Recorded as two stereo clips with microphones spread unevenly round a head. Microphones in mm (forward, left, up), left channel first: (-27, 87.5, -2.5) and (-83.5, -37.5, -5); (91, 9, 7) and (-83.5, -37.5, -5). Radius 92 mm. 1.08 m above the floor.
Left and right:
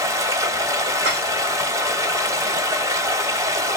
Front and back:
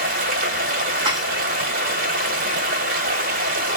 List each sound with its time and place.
0.0 s running water: 175° right, 1.0 m
1.1 s dishes clattering: 95° right, 1.7 m